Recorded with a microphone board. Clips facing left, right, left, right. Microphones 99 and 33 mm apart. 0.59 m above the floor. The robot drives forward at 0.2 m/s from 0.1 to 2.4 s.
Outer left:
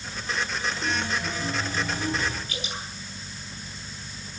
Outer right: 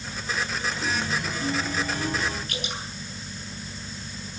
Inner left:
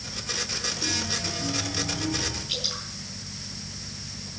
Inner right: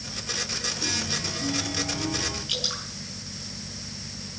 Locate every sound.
0.8 s a chime: 70° right (ahead or behind), 9.5 m; by 2.4 s 65° right (ahead or behind), 9.5 m
2.5 s dripping: 60° right (ahead or behind), 8 m